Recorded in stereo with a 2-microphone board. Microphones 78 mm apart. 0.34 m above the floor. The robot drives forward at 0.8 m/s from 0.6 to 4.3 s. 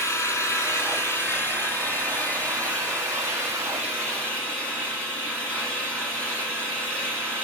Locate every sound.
0.0 s an engine running: 40° left (ahead or behind), 2 m; by 7.5 s 15° left (ahead or behind), 5 m